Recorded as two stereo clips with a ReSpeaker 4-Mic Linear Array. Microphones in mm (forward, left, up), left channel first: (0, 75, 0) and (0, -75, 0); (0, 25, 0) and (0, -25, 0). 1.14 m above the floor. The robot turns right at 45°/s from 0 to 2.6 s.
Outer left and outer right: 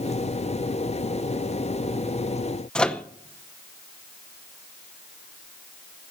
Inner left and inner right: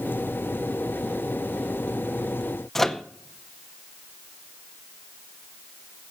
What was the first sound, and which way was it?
A microwave, 5° left (ahead or behind).